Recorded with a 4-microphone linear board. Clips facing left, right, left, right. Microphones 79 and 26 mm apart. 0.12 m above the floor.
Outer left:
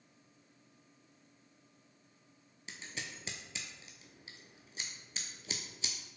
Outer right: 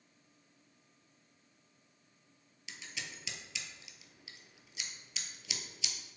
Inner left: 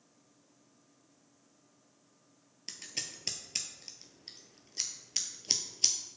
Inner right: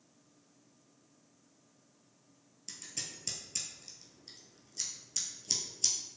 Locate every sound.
2.7 s scissors: 40° left (ahead or behind), 0.6 m